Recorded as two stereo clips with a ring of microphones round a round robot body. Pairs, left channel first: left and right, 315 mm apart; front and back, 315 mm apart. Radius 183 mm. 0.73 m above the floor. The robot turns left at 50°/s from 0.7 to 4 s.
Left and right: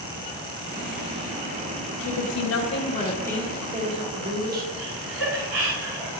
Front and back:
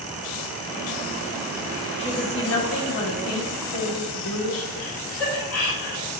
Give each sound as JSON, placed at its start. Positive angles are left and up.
{"t": 2.0, "sound": "a woman speaking", "azimuth_deg": 70, "distance_m": 1.7}
{"t": 4.8, "sound": "laughter", "azimuth_deg": -45, "distance_m": 2.5}